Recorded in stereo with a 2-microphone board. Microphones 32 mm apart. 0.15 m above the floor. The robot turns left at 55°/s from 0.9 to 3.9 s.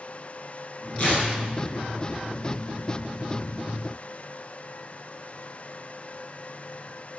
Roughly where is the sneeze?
I don't hear a sneeze.